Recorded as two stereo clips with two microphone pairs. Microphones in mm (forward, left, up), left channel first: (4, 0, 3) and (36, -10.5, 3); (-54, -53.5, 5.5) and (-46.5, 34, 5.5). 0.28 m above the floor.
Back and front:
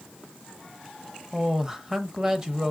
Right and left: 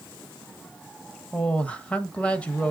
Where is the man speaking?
50° right, 0.9 m.